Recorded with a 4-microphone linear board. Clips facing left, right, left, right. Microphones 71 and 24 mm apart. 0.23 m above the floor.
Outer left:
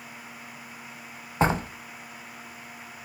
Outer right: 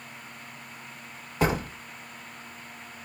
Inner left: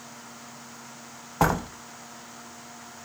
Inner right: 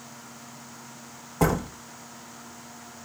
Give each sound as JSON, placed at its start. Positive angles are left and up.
{"t": 1.4, "sound": "a door slam", "side_deg": 30, "distance_m": 0.8}